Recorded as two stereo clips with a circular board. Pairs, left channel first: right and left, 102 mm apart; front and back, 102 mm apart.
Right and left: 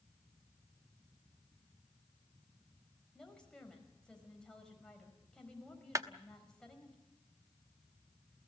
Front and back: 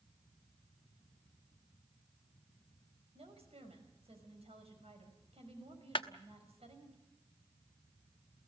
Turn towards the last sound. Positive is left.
turn(degrees=35)